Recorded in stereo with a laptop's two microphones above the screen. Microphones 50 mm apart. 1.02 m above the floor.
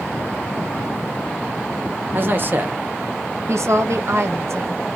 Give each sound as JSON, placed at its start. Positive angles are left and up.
{"t": 2.1, "sound": "a man speaking", "side_deg": -45, "distance_m": 0.8}
{"t": 3.5, "sound": "a woman speaking", "side_deg": -65, "distance_m": 0.9}